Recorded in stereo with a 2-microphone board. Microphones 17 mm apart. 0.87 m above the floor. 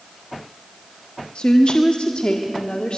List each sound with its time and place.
1.4 s a woman speaking: 70° left (ahead or behind), 1.2 m